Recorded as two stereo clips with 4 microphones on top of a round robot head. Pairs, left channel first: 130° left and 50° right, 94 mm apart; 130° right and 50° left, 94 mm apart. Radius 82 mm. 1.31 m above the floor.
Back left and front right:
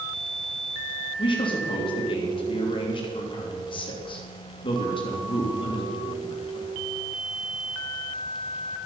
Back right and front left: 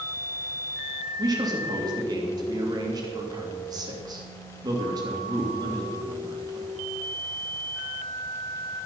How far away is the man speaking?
About 3 m.